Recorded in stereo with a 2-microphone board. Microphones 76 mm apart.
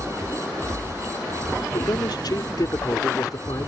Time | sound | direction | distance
1.7 | a man speaking | 70° left (ahead or behind) | ?